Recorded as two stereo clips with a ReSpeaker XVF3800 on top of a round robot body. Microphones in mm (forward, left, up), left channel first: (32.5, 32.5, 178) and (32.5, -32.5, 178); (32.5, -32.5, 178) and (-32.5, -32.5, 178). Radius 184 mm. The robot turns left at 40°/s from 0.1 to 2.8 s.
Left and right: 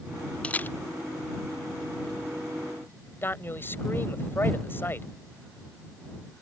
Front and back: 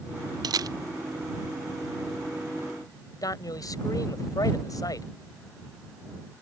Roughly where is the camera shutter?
Behind.